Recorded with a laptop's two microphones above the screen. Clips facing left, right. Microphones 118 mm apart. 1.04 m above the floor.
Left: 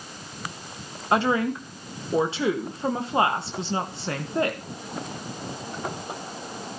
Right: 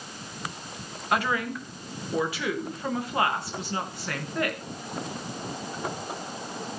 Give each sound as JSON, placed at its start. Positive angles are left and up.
{"t": 1.1, "sound": "a woman speaking", "side_deg": 25, "distance_m": 0.9}